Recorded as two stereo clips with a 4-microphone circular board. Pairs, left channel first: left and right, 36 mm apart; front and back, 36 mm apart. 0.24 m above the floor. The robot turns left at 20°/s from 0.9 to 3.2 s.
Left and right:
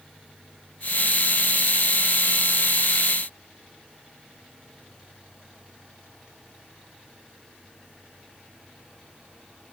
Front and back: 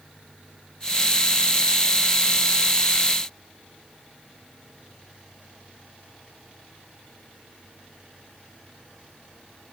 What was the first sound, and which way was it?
Only background noise.